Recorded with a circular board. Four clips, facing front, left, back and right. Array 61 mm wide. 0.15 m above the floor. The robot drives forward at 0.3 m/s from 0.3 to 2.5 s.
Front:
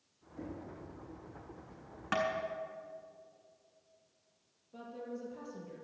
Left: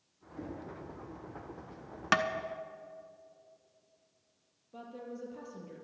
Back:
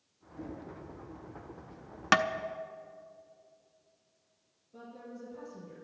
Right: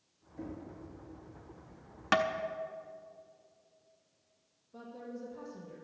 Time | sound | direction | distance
0.4 | knocking | 70° left | 6 m
2.1 | tapping | 165° left | 0.6 m
4.7 | a woman speaking | 65° left | 4 m